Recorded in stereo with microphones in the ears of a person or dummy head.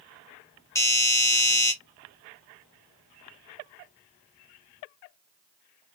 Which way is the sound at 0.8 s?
10° left (ahead or behind).